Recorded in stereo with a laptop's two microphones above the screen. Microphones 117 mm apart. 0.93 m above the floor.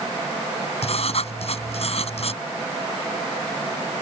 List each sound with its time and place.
0.8 s writing: 60° left (ahead or behind)